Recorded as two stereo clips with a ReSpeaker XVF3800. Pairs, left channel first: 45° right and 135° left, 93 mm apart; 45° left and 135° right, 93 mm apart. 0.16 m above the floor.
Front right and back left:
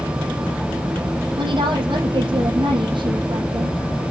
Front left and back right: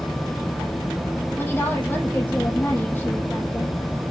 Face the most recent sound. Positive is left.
turn(degrees=110)